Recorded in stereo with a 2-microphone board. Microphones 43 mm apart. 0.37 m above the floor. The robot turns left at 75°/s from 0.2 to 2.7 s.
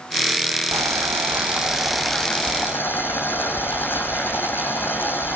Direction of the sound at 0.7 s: 85° right.